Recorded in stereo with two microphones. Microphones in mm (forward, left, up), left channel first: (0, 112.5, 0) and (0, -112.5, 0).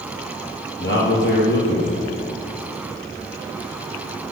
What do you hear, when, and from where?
0.8 s a man speaking: 55° left (ahead or behind), 3.5 m